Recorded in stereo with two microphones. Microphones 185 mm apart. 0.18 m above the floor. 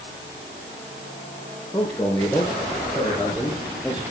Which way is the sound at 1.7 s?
10° left (ahead or behind).